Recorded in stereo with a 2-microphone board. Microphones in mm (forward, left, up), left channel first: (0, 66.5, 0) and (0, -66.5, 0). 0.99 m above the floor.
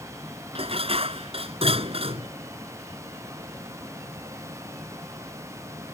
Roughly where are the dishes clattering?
Right.